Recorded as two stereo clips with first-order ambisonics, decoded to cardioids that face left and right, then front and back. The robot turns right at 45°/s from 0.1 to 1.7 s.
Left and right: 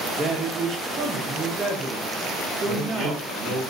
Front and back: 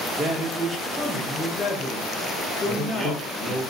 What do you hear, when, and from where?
0.2 s a man speaking: 130° right, 0.7 m; by 3.6 s 60° right, 0.7 m
2.6 s a man speaking: 130° right, 1.3 m